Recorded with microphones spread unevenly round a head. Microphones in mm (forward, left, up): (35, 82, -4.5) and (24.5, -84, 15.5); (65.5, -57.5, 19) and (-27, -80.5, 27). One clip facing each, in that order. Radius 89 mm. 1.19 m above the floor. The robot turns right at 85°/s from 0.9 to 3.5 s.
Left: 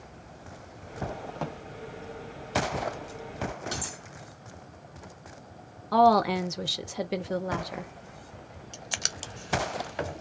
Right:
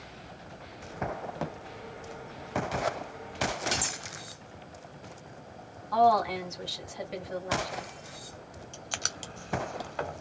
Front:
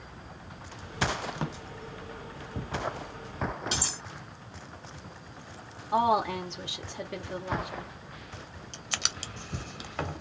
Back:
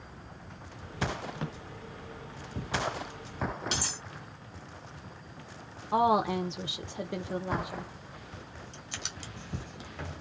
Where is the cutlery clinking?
155° right, 0.9 m.